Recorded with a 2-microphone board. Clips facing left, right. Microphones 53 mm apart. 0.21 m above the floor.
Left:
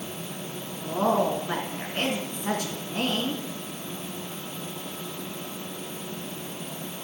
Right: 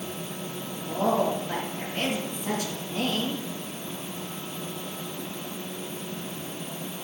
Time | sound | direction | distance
0.8 | a woman speaking | 55° left (ahead or behind) | 2.5 m